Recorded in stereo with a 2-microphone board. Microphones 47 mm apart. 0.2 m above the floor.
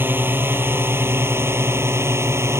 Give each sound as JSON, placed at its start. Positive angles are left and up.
{"t": 0.0, "sound": "a drone", "side_deg": -45}